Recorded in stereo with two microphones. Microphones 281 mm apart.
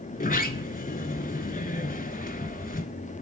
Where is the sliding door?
30° left (ahead or behind), 0.5 m.